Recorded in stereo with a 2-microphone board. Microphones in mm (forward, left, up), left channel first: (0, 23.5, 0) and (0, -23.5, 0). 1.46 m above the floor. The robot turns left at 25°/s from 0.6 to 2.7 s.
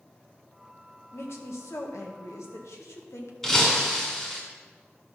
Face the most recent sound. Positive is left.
turn(degrees=10)  # may be behind; listen again after turning